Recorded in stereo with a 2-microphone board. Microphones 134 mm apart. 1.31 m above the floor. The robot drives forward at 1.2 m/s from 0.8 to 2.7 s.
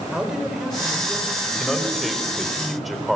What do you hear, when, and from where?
0.1 s a man speaking: 5° right (ahead or behind), 6.5 m
1.5 s a man speaking: centre (ahead or behind), 5.5 m